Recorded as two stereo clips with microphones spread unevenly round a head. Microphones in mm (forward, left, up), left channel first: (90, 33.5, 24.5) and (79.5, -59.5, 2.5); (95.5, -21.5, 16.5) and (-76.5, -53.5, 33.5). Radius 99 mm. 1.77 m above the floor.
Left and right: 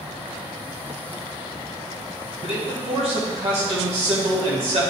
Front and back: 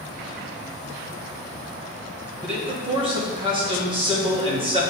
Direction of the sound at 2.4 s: 110° right.